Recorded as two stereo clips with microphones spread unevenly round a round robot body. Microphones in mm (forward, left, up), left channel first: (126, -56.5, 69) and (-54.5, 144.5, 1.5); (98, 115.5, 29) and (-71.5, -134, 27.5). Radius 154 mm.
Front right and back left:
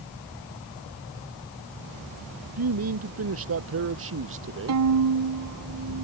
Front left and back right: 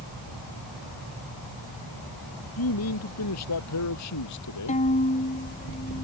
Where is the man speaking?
100° left; by 4.8 s 90° left.